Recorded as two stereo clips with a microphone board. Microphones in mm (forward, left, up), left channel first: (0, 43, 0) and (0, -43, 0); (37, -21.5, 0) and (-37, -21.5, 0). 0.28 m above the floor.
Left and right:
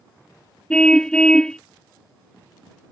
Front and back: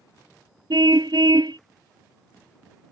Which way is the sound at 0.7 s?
170° left.